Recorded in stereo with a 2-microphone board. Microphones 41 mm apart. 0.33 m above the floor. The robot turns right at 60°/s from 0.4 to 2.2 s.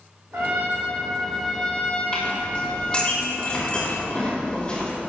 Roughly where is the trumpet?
Ahead right.